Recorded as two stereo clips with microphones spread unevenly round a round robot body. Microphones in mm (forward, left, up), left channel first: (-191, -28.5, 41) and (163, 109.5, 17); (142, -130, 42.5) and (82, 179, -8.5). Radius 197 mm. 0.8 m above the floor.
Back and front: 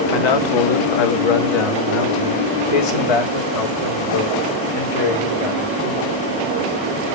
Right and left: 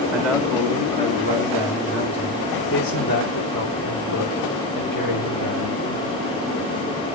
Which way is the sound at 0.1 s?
Straight behind.